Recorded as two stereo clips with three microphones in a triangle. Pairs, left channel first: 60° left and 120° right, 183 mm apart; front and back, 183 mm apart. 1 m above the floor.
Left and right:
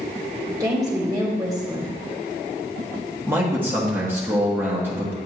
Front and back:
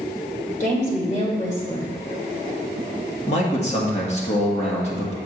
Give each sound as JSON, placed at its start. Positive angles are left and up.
{"t": 0.6, "sound": "a woman speaking", "azimuth_deg": -50, "distance_m": 2.5}
{"t": 3.3, "sound": "a man speaking", "azimuth_deg": -45, "distance_m": 1.5}